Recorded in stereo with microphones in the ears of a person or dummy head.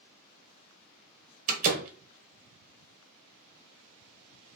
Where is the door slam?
45° right (ahead or behind), 1.0 m.